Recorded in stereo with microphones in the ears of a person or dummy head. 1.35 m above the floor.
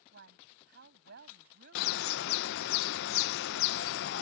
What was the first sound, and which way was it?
A woman speaking, 65° right (ahead or behind).